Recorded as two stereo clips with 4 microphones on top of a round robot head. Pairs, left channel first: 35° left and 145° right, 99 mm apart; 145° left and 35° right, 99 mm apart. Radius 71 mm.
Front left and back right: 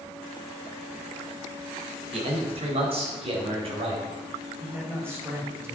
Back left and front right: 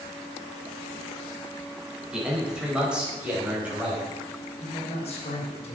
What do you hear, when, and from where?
2.1 s a man speaking: 120° right, 3.5 m; by 4.0 s 115° right, 5 m
4.6 s a man speaking: 150° left, 3.5 m